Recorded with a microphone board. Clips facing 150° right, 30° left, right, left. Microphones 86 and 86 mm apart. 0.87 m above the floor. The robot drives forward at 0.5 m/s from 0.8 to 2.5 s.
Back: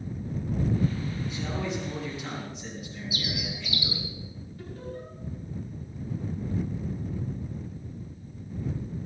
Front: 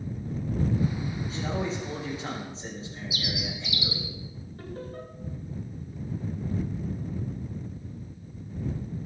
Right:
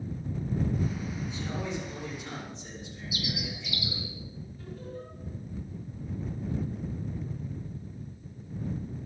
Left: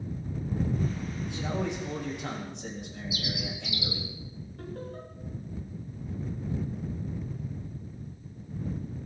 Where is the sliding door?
No sliding door in this recording.